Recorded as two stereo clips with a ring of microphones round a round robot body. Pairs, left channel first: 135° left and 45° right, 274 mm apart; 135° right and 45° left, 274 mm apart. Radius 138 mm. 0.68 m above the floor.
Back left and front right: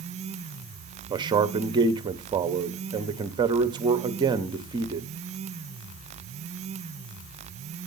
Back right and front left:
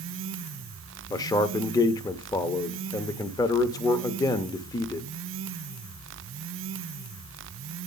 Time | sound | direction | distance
1.1 | a man speaking | 85° right | 0.6 m